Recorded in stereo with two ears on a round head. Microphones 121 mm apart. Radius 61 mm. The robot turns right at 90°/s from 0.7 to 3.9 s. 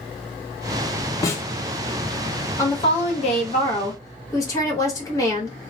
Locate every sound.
1.2 s a snare drum: 25° left (ahead or behind), 0.6 m; by 1.4 s 15° left (ahead or behind), 0.6 m
2.6 s a woman speaking: 30° left, 1.0 m; by 5.6 s 150° left, 1.0 m